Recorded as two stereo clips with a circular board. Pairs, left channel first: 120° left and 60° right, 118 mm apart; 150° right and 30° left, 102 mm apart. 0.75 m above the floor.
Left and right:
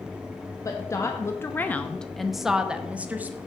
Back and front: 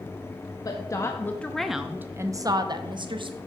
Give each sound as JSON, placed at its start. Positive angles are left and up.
{"t": 0.7, "sound": "a woman speaking", "azimuth_deg": 175, "distance_m": 0.8}